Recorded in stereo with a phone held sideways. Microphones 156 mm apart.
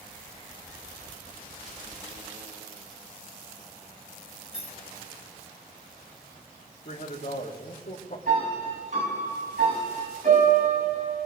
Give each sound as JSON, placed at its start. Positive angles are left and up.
{"t": 4.5, "sound": "keys jangling", "side_deg": -5, "distance_m": 7.0}
{"t": 6.8, "sound": "a man speaking", "side_deg": 70, "distance_m": 2.5}
{"t": 8.3, "sound": "a piano", "side_deg": -55, "distance_m": 7.0}